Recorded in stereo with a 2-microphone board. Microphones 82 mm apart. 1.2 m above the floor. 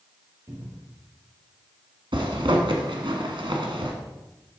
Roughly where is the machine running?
No machine running in this recording.